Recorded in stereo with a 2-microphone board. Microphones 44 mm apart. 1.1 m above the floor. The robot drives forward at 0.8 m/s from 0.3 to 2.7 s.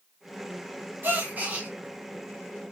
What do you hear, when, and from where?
1.0 s a gasp: 45° right (ahead or behind), 0.9 m; by 1.7 s 30° right (ahead or behind), 1.3 m